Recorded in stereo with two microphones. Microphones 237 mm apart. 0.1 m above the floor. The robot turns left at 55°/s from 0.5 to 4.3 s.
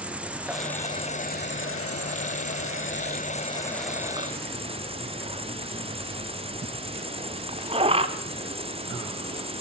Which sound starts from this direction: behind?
An insect, at 0.0 s.